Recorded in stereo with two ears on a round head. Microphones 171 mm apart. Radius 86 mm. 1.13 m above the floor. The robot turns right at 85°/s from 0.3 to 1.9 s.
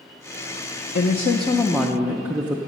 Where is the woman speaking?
110° left, 0.6 m; by 2.6 s 170° right, 0.6 m.